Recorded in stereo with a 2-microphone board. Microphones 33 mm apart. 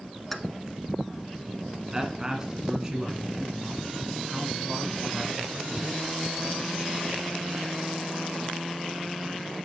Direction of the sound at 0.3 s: 10° left (ahead or behind).